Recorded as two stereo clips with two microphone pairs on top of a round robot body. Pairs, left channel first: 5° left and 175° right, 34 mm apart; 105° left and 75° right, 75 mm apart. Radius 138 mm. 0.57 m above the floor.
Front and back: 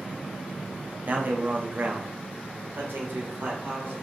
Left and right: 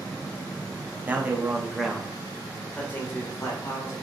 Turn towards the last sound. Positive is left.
turn(degrees=150)